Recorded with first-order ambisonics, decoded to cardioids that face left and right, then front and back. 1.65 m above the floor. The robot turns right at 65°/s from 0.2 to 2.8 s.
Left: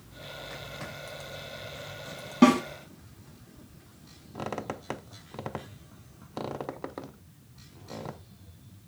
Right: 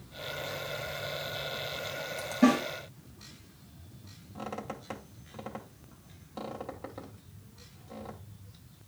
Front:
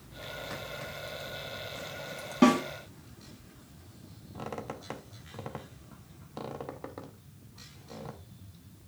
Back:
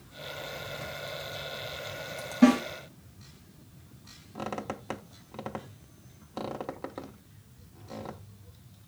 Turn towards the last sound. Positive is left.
turn(degrees=115)